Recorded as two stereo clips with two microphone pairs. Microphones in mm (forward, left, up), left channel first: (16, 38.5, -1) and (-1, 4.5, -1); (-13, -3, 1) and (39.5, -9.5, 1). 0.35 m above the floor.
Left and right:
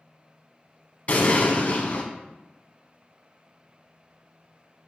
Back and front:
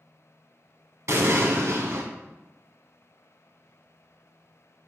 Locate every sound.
1.1 s an explosion: 20° left, 0.7 m